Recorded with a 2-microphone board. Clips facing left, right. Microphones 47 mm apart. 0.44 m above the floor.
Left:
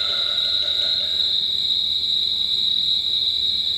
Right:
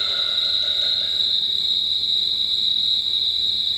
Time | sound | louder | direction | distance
0.0 | an insect | even | 25° left (ahead or behind) | 3 m